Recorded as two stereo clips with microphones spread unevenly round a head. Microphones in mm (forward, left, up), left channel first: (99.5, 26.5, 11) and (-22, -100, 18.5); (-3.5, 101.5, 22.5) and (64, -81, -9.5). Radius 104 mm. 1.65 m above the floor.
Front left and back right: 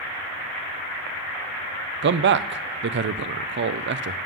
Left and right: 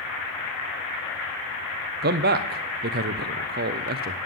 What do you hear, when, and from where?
2.0 s a man speaking: 115° right, 0.6 m